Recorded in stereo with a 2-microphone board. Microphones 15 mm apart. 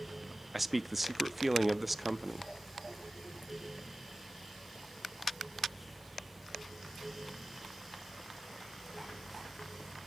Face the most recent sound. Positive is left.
turn(degrees=-5)  # may be behind; listen again after turning